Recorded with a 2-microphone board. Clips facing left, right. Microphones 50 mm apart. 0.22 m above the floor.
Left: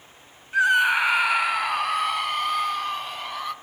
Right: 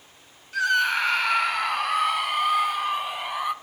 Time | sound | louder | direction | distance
0.5 | a scream | left 3 dB | 20° left (ahead or behind) | 1.1 m